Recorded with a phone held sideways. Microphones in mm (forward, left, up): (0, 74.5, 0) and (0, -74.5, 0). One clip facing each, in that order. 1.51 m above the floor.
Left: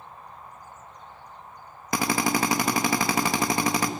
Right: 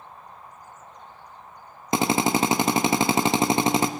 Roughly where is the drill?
Right.